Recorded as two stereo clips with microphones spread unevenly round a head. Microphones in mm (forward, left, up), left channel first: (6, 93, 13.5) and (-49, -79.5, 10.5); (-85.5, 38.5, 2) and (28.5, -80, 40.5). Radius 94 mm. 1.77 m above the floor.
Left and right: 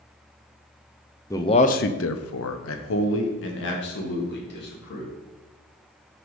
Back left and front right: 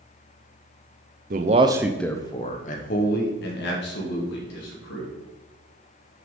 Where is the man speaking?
5° right, 0.8 m; by 5.1 s 105° left, 3 m.